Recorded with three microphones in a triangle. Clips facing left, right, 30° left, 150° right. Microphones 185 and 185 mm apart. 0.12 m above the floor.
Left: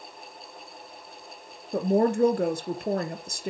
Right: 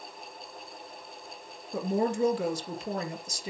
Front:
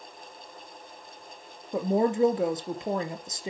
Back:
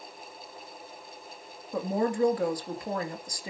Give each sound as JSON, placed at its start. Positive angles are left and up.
{"t": 1.7, "sound": "a woman speaking", "azimuth_deg": 90, "distance_m": 2.0}